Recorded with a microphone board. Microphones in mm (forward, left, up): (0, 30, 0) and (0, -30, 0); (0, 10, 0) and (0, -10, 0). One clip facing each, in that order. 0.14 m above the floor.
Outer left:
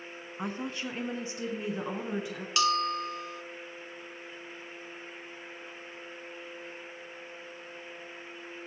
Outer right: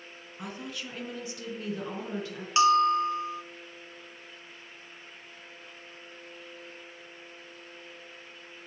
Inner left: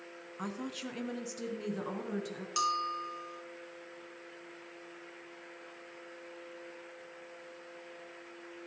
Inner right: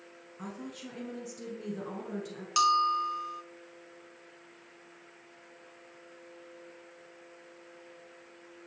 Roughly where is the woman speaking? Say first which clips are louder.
Outer left 4 dB, inner left 3 dB; left.